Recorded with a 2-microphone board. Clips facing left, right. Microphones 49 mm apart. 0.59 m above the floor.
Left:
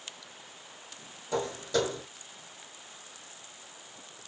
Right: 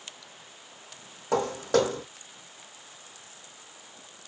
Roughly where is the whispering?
No whispering in this recording.